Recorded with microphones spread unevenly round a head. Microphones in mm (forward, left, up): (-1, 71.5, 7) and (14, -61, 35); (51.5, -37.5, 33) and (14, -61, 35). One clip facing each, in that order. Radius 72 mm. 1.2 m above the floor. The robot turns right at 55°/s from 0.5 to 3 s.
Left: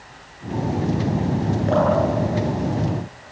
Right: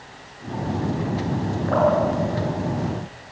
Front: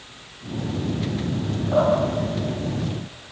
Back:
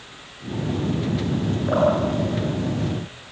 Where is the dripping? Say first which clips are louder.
Right 1 dB, even; 160° left, 9 m; by 1.9 s 170° left, 9 m.